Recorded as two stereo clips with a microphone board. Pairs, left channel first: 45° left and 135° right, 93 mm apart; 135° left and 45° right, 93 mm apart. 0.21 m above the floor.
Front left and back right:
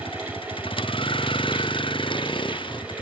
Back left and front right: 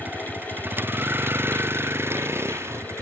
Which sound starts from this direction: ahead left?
A vehicle, at 0.0 s.